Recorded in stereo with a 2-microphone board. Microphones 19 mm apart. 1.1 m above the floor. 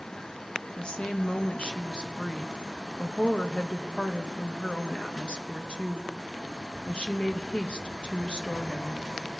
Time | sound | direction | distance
0.8 | a woman speaking | 70° left (ahead or behind) | 1.0 m